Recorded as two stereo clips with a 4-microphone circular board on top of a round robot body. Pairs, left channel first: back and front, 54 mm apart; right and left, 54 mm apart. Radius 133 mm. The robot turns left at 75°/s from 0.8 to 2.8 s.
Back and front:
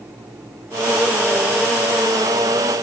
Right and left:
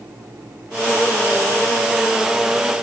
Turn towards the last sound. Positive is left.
No sound to turn to.